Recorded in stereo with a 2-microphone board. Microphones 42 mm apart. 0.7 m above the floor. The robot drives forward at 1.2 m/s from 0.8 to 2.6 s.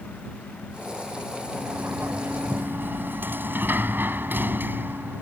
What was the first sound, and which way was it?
A sliding door, 75° right (ahead or behind).